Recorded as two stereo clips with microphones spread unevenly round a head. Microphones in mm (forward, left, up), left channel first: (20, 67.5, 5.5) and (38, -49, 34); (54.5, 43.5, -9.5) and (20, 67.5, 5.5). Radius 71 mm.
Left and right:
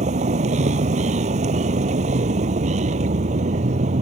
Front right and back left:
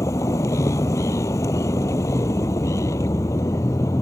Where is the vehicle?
55° right.